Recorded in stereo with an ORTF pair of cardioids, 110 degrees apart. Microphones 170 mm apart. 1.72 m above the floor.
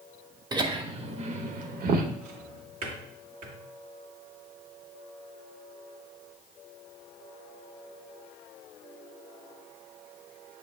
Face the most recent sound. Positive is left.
turn(degrees=-65)